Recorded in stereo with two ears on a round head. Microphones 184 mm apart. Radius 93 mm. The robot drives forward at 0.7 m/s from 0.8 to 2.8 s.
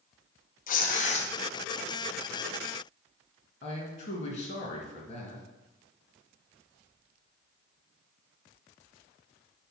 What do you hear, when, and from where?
0.7 s tearing paper: 45° left (ahead or behind), 0.7 m; by 1.3 s 35° left (ahead or behind), 0.9 m
3.6 s a man speaking: 35° left (ahead or behind), 1.8 m